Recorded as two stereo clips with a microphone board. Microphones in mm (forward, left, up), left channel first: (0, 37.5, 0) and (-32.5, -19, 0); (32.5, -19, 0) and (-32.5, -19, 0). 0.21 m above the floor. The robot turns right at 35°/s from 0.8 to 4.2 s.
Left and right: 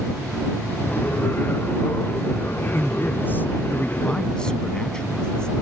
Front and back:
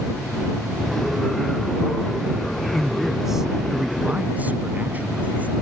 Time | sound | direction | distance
2.7 | a man speaking | 80° left | ?